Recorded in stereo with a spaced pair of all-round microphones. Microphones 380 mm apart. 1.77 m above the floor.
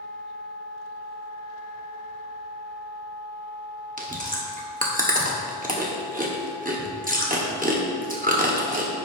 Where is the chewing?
20° right (ahead or behind), 1.3 m.